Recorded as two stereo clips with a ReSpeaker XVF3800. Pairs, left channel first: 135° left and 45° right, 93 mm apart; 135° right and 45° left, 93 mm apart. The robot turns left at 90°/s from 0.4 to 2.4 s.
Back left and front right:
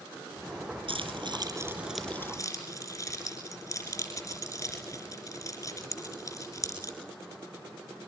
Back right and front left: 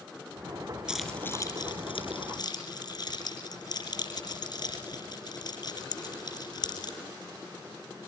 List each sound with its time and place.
0.9 s keys jangling: 35° right, 4.5 m; by 7.0 s 170° right, 4.5 m